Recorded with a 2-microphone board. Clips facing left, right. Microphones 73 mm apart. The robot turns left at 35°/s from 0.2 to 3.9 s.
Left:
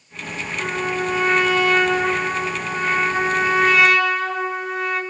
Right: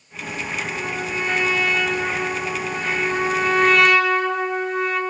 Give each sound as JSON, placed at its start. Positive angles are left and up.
{"t": 0.6, "sound": "a trumpet", "azimuth_deg": 115, "distance_m": 3.5}